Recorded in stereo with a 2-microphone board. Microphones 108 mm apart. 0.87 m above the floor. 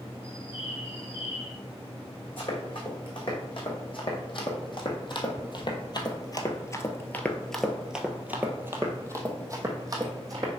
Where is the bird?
55° left (ahead or behind), 2.5 m.